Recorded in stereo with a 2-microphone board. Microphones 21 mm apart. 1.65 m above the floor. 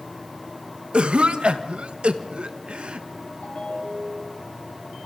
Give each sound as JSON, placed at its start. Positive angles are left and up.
{"t": 0.9, "sound": "a cough", "side_deg": -55, "distance_m": 1.4}
{"t": 3.4, "sound": "a ringtone", "side_deg": 65, "distance_m": 7.0}